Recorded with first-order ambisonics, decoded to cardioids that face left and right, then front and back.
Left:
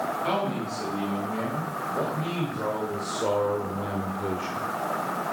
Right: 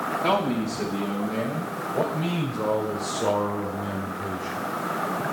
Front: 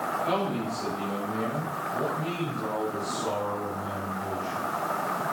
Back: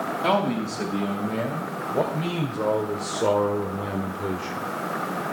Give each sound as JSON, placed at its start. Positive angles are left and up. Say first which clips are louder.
{"t": 0.2, "sound": "a man speaking", "louder": "right 4 dB, back 5 dB", "azimuth_deg": -160, "distance_m": 4.5}